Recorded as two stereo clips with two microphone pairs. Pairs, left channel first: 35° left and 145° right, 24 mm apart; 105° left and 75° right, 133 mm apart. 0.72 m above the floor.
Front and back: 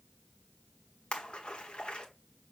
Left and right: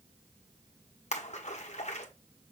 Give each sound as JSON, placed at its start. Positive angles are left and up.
{"t": 1.1, "sound": "a splash", "azimuth_deg": 80, "distance_m": 1.5}